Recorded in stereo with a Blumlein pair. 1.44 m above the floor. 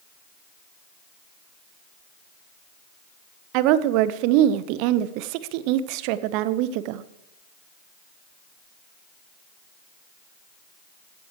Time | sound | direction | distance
3.5 | a woman speaking | 45° right | 0.7 m